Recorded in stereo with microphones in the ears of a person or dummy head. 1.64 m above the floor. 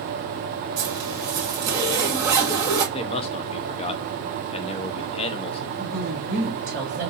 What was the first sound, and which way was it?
A zipper, 15° right (ahead or behind).